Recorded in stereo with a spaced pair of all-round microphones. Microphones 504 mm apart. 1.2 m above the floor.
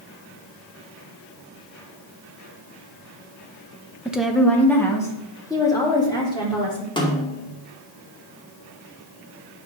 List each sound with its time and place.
4.0 s a woman speaking: 5° right (ahead or behind), 1.1 m; by 6.9 s 10° left (ahead or behind), 4 m
7.0 s a snare drum: 10° left (ahead or behind), 2.0 m